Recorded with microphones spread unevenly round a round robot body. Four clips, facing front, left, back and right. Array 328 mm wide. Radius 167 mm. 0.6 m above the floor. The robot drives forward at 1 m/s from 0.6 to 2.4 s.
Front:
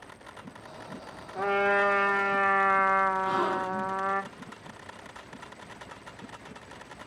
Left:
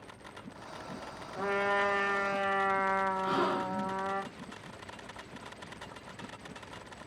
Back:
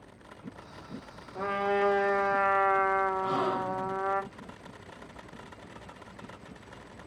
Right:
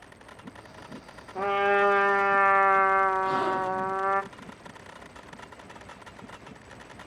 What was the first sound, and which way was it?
A trumpet, 55° right.